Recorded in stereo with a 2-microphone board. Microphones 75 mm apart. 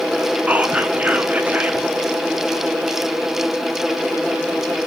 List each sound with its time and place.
0.5 s whispering: 20° right (ahead or behind), 1.2 m